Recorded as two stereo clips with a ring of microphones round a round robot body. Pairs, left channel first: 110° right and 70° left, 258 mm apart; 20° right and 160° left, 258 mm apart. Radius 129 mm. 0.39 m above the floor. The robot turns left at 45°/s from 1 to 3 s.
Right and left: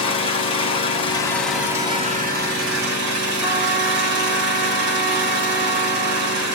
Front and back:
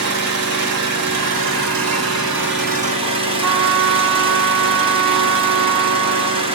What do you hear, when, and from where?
0.0 s an engine running: straight behind, 2.5 m; by 6.5 s 90° left, 2.5 m
3.4 s a trumpet: 150° left, 1.2 m